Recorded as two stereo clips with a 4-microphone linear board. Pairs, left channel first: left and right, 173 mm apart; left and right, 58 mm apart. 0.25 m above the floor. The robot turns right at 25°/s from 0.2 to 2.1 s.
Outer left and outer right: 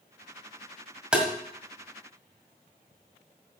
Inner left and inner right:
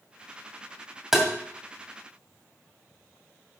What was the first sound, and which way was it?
Tapping, 5° right (ahead or behind).